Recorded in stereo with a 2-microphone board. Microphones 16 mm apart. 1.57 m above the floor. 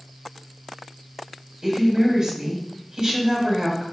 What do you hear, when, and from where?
1.6 s a woman speaking: 30° right (ahead or behind), 6.5 m